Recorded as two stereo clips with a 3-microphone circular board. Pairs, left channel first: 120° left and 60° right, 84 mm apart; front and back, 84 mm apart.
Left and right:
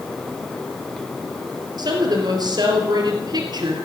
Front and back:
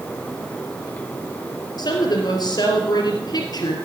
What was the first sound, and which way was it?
A woman speaking, 30° right.